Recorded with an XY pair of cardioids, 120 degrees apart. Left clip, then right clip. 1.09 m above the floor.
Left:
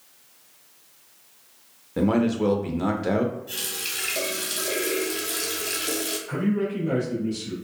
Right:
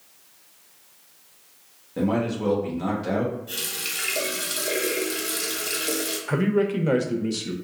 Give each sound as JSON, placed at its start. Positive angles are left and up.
{"t": 2.0, "sound": "a man speaking", "azimuth_deg": 30, "distance_m": 0.5}
{"t": 3.5, "sound": "a running tap", "azimuth_deg": -5, "distance_m": 0.9}
{"t": 6.3, "sound": "a man speaking", "azimuth_deg": -65, "distance_m": 0.6}